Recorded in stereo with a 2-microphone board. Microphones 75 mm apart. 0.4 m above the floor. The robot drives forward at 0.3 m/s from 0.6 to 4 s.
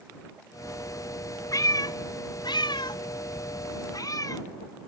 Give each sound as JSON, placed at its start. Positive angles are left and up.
{"t": 1.5, "sound": "a cat meowing", "side_deg": 50, "distance_m": 0.6}